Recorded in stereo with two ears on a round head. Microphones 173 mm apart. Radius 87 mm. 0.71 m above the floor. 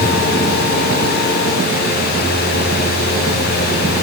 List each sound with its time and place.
Only background noise.